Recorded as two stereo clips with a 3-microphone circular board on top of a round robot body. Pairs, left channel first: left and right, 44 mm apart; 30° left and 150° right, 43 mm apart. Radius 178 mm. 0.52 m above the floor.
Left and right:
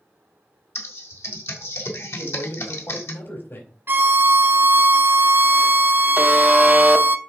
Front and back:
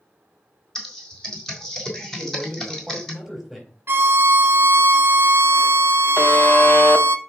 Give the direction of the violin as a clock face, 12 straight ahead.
4 o'clock.